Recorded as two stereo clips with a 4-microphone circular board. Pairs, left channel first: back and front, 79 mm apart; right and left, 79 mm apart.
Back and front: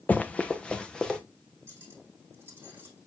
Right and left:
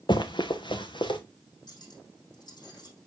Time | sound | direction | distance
0.1 | running footsteps | 110° right | 0.8 m
1.7 | cutlery clinking | 60° right | 4 m